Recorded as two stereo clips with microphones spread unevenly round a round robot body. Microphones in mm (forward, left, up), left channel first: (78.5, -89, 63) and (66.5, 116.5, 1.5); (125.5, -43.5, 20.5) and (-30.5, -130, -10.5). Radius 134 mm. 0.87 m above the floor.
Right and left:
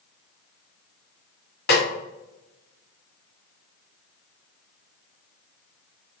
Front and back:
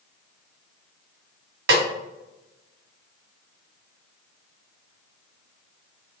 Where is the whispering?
I don't hear whispering.